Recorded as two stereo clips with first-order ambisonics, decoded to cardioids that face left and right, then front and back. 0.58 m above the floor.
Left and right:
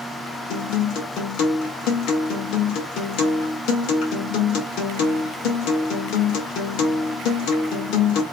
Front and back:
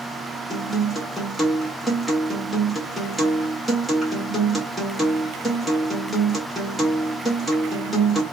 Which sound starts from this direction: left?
A guitar, at 0.5 s.